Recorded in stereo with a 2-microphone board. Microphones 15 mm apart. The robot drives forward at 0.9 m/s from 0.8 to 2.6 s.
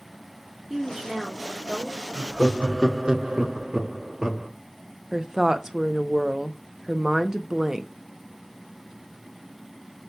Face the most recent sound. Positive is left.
turn(degrees=-30)  # may be behind; listen again after turning